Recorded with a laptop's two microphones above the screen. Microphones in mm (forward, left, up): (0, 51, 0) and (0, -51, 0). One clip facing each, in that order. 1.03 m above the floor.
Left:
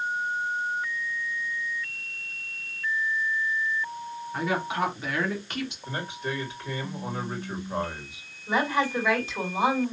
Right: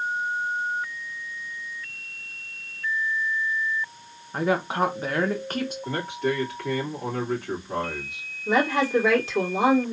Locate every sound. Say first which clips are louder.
4.3 s a woman speaking: right 4 dB; 40° right (ahead or behind), 0.8 m
5.8 s a man speaking: right 6 dB; 80° right, 2.5 m
8.5 s a woman speaking: right 3 dB; 80° right, 2.5 m